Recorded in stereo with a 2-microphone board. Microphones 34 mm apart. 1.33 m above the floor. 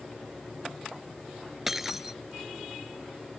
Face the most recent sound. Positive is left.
turn(degrees=-15)  # may be behind; listen again after turning